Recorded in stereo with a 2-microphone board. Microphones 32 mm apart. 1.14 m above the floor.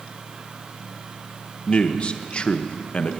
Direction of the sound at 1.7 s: 35° left (ahead or behind).